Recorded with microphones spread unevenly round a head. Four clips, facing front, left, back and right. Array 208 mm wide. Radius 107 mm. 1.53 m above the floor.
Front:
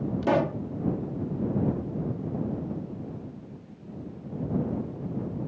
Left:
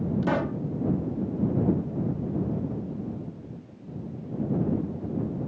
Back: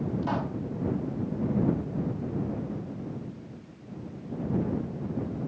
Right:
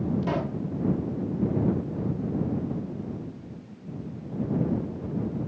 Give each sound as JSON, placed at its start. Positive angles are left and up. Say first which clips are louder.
{"t": 0.2, "sound": "a pop", "louder": "left 2 dB, front 6 dB", "azimuth_deg": 10}